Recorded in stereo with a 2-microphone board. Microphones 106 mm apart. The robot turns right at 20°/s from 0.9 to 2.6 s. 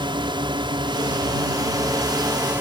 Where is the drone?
55° right; by 2.6 s 20° right.